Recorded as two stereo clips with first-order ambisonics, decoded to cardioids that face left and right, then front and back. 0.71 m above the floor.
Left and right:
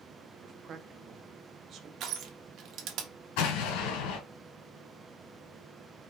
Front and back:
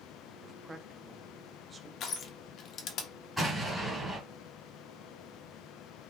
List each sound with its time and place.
0.4 s a man speaking: 120° right, 0.7 m
2.0 s crushing: 50° right, 0.9 m
3.4 s an explosion: 90° left, 3 m